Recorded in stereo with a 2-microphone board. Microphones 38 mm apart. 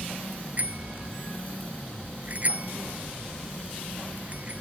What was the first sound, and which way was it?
A bicycle bell, 40° right (ahead or behind).